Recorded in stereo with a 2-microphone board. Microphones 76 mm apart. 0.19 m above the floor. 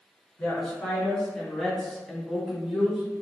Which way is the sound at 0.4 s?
15° left (ahead or behind).